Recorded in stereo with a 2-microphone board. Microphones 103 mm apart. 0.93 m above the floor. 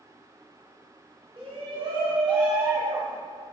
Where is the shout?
65° right (ahead or behind), 3 m; by 3.2 s 40° right (ahead or behind), 4 m.